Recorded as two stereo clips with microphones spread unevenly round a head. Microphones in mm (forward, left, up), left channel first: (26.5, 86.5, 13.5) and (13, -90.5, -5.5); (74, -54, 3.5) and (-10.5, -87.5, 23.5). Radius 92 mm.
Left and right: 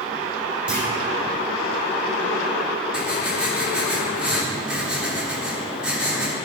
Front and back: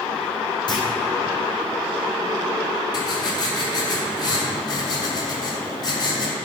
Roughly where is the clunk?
Ahead.